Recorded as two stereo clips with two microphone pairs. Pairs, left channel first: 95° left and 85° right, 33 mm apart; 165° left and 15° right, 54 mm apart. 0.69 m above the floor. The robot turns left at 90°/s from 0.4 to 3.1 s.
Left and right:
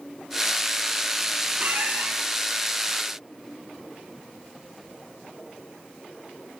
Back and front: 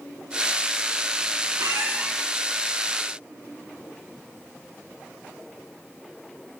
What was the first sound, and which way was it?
A squeak, 40° right.